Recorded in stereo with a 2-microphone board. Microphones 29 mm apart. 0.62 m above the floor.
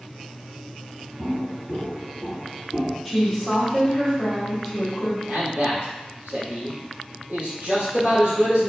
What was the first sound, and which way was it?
Footsteps, 50° right (ahead or behind).